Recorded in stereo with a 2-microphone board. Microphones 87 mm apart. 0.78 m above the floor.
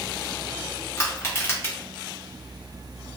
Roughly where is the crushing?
Left.